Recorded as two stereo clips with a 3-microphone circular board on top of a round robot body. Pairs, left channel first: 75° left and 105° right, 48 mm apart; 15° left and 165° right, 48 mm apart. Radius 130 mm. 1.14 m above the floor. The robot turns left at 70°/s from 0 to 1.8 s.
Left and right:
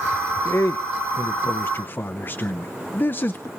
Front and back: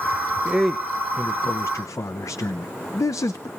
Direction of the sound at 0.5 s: 120° left.